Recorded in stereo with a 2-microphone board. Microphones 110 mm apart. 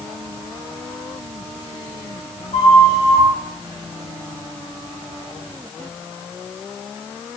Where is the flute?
65° left (ahead or behind), 1.1 m.